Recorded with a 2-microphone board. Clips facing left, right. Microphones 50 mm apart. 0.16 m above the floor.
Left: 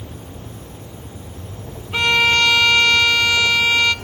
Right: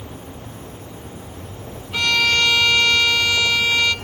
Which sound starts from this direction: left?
A violin, at 1.9 s.